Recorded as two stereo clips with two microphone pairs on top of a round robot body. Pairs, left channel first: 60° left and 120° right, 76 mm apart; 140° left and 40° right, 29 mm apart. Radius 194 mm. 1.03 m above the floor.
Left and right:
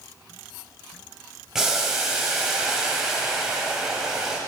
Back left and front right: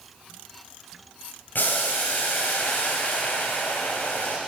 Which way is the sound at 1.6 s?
155° left.